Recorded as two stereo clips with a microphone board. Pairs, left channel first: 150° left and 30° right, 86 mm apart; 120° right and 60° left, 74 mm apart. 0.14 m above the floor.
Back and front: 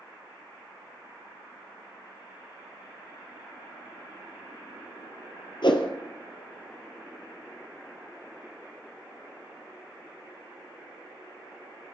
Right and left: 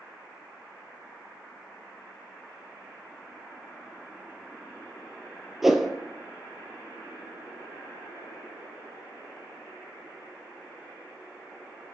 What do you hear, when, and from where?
5.6 s a whoosh: 145° left, 1.4 m